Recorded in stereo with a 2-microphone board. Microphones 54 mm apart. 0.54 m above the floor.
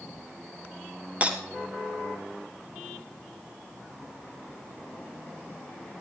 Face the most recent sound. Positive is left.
turn(degrees=-25)  # may be behind; listen again after turning